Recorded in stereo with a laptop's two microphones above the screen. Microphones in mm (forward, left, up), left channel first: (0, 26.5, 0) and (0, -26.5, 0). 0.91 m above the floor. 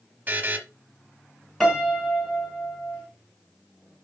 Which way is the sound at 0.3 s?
35° right (ahead or behind).